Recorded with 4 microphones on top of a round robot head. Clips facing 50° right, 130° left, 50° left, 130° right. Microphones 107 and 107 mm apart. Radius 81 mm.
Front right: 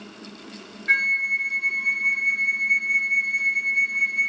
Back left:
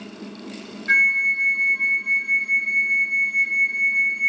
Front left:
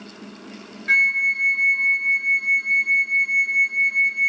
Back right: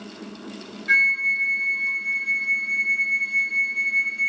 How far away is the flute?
About 1.0 m.